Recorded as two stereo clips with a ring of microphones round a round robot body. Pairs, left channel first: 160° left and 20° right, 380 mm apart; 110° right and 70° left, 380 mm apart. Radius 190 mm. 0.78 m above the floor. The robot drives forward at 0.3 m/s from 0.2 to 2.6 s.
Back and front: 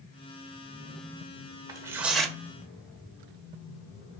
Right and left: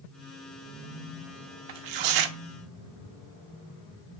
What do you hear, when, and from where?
1.7 s tearing paper: 60° left, 0.9 m; by 2.4 s 70° left, 0.8 m